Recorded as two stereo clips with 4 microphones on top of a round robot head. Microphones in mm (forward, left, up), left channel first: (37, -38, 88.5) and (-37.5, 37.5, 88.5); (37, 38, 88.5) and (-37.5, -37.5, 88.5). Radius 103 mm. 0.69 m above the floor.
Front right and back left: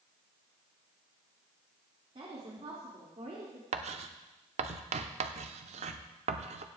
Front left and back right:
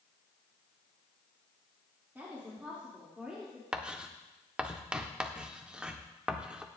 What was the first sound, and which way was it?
A woman speaking, 155° left.